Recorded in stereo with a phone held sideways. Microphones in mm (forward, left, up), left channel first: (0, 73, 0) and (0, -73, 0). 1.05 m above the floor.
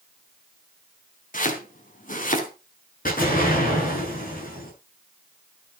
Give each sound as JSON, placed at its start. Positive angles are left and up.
{"t": 1.3, "sound": "chopping", "side_deg": 60, "distance_m": 3.0}
{"t": 3.0, "sound": "an explosion", "side_deg": 65, "distance_m": 9.0}